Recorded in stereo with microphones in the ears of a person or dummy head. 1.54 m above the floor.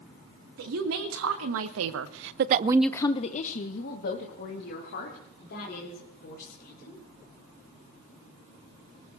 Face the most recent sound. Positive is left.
turn(degrees=65)  # may be behind; listen again after turning